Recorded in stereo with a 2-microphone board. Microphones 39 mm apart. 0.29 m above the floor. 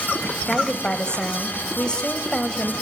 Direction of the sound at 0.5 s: 25° left (ahead or behind).